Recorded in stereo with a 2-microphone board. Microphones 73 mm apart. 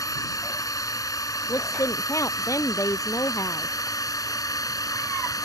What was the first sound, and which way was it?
A drone, 55° left (ahead or behind).